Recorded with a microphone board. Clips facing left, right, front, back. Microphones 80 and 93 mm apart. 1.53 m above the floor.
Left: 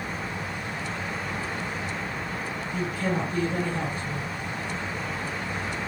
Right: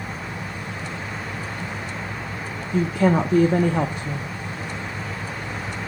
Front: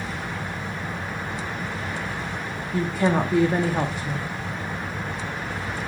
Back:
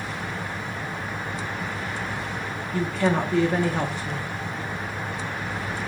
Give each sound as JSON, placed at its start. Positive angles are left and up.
{"t": 2.7, "sound": "a woman speaking", "azimuth_deg": -80, "distance_m": 0.5}